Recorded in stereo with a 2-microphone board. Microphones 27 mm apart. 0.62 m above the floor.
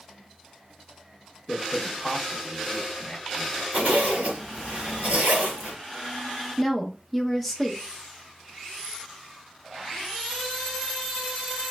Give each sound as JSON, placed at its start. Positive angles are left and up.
{"t": 1.5, "sound": "a man speaking", "side_deg": -15, "distance_m": 0.9}
{"t": 3.7, "sound": "a zipper", "side_deg": -70, "distance_m": 1.6}
{"t": 6.6, "sound": "a woman speaking", "side_deg": -10, "distance_m": 0.7}